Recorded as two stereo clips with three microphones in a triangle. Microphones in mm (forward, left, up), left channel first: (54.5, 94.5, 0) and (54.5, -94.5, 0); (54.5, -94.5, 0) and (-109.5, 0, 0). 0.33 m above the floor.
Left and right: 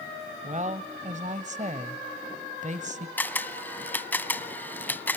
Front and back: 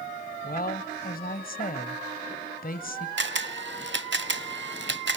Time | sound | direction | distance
0.4 | a woman speaking | 50° right | 1.3 m
3.2 | a camera shutter | 170° left | 0.7 m